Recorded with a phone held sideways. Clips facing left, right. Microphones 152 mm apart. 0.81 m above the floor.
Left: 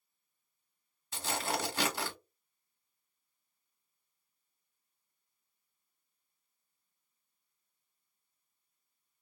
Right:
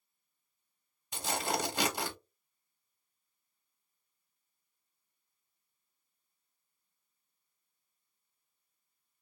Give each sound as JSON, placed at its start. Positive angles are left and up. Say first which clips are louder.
{"t": 1.1, "sound": "tearing paper", "louder": "right 1 dB", "side_deg": -15, "distance_m": 0.9}